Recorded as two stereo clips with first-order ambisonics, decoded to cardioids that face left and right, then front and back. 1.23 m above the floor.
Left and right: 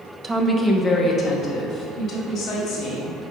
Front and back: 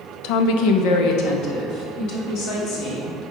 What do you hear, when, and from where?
0.2 s a woman speaking: 15° right, 0.7 m; by 3.2 s 35° left, 3.5 m